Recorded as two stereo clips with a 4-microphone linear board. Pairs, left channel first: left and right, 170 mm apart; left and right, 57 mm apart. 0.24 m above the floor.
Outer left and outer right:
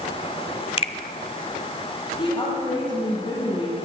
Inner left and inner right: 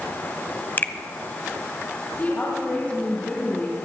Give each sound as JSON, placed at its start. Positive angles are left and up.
{"t": 0.8, "sound": "a finger snap", "side_deg": 35, "distance_m": 0.9}
{"t": 2.2, "sound": "a woman speaking", "side_deg": 30, "distance_m": 6.0}